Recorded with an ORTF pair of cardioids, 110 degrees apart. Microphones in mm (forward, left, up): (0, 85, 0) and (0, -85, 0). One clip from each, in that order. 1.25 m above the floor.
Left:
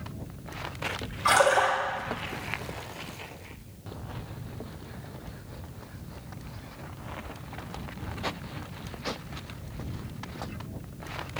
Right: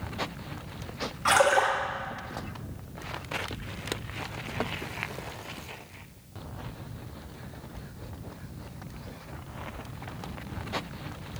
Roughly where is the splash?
Ahead.